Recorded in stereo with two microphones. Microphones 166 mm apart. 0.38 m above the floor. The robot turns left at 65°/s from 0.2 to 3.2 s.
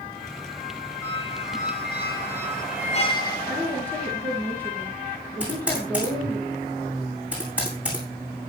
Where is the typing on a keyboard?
5° right (ahead or behind), 9 m.